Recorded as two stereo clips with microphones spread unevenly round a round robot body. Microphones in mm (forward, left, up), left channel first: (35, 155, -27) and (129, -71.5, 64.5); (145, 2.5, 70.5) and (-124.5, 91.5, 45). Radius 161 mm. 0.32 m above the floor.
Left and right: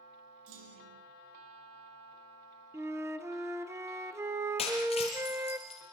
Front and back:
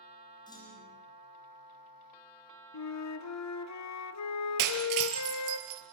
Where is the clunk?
95° right, 7.5 m.